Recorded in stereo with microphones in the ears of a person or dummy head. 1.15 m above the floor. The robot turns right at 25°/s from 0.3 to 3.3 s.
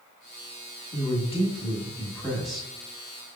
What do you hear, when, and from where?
0.9 s a woman speaking: 140° left, 1.5 m; by 2.7 s straight behind, 1.5 m